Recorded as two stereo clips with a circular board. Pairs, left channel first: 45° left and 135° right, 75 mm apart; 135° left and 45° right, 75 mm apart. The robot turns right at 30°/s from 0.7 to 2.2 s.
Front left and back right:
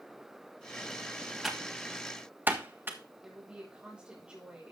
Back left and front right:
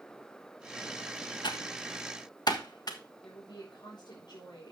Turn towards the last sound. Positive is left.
turn(degrees=150)